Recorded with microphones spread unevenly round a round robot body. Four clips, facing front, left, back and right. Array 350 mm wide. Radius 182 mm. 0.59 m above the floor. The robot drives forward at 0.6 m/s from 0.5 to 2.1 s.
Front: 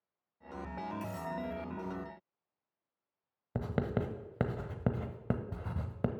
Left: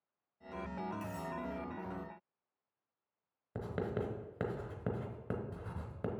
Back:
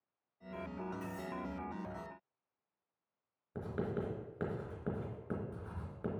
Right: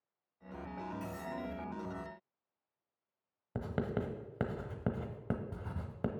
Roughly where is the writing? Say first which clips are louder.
Right 1 dB, front 4 dB; ahead.